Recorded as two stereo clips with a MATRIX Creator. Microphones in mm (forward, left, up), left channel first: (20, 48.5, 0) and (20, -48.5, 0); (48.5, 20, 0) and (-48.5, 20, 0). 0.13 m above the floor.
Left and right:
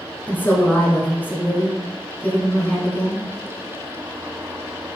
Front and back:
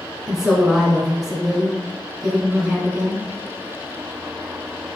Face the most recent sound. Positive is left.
turn(degrees=105)